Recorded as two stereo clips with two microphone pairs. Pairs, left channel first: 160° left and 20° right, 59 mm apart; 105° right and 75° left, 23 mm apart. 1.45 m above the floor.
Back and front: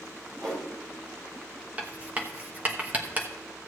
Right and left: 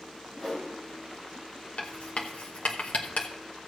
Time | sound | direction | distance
0.3 | a whoosh | 15° right | 6 m
1.8 | writing | 85° right | 1.0 m